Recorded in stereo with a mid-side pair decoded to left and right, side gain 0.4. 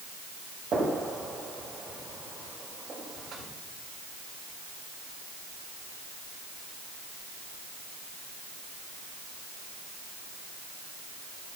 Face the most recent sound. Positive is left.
turn(degrees=-55)